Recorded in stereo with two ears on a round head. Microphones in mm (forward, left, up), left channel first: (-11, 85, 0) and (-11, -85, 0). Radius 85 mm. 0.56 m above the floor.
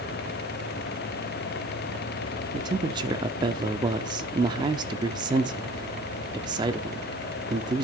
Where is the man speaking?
20° right (ahead or behind), 0.8 m.